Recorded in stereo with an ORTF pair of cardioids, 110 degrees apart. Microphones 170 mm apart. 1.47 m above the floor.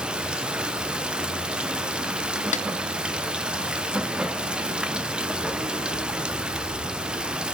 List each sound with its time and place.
0.0 s running water: 5° right, 0.7 m
2.5 s a snare drum: 45° left, 0.6 m